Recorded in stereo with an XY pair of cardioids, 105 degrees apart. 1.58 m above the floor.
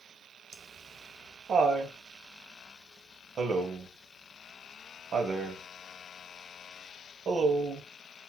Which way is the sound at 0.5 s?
50° right.